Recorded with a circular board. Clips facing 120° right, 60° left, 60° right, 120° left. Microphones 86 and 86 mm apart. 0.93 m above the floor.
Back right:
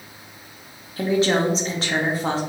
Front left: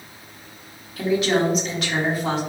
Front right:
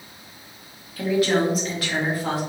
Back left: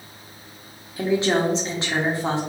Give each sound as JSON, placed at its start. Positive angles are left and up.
{"t": 1.0, "sound": "a woman speaking", "azimuth_deg": -175, "distance_m": 1.0}